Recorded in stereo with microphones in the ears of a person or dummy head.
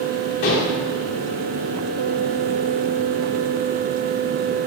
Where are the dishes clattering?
40° left (ahead or behind), 0.9 m.